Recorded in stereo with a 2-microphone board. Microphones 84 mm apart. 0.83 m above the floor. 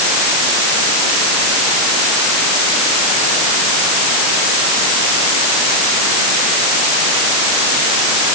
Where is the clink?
No clink in this recording.